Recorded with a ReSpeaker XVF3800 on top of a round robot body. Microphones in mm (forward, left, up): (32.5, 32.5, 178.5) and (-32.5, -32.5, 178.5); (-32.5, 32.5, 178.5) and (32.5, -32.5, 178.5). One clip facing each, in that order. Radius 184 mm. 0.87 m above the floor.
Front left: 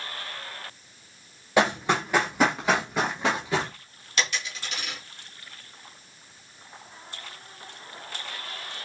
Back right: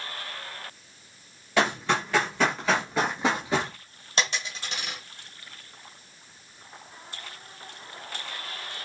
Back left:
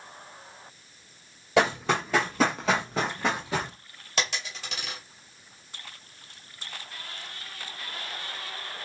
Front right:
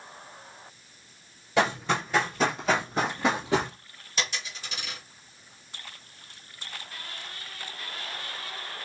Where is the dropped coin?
165° left, 1.9 m.